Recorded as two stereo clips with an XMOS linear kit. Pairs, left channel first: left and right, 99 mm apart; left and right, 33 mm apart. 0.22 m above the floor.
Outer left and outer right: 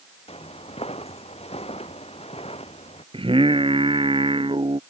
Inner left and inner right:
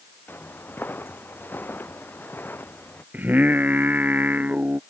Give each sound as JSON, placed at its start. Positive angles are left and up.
{"t": 0.3, "sound": "footsteps", "side_deg": 80}
{"t": 3.1, "sound": "singing", "side_deg": -65}